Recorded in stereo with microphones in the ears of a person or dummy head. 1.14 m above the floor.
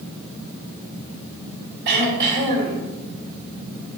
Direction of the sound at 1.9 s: 70° right (ahead or behind).